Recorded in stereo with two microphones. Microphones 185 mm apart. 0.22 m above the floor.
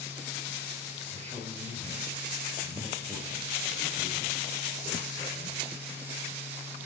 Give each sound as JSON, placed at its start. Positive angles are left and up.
{"t": 1.1, "sound": "a man speaking", "side_deg": -40, "distance_m": 5.5}